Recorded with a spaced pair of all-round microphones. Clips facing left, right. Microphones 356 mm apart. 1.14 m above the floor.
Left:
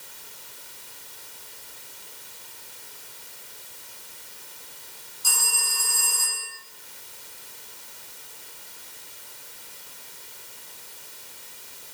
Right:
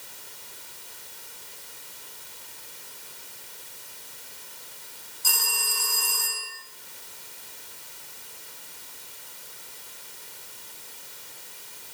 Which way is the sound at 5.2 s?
30° right (ahead or behind).